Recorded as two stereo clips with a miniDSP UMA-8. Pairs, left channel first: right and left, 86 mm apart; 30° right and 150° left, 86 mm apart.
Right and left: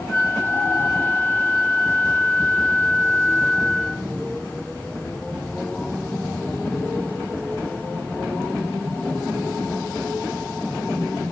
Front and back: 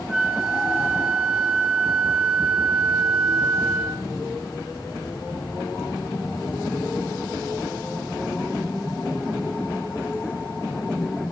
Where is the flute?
140° right, 0.7 m.